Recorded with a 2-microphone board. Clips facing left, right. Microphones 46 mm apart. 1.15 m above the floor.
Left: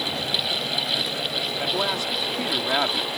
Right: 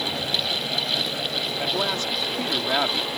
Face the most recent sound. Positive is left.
turn(degrees=5)  # may be behind; listen again after turning